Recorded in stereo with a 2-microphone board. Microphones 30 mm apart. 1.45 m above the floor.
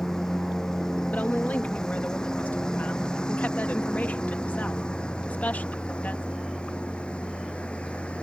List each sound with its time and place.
0.0 s a lawn mower: 15° left (ahead or behind); by 8.2 s 40° left (ahead or behind)
1.1 s a woman speaking: 65° left (ahead or behind)